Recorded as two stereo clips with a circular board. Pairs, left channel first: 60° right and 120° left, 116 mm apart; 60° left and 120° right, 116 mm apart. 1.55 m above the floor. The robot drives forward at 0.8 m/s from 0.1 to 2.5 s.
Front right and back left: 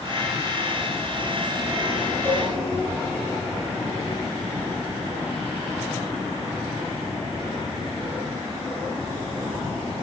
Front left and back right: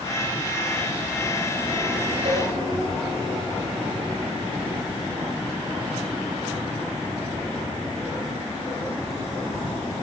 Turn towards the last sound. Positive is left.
turn(degrees=-130)